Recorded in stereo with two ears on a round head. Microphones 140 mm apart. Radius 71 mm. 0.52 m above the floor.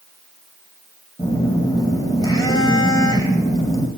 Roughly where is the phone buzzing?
Left.